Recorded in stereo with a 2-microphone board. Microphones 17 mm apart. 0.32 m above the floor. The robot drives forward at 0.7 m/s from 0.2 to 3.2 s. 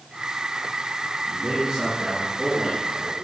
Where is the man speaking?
55° right (ahead or behind), 4.5 m; by 3.1 s 45° right (ahead or behind), 5 m.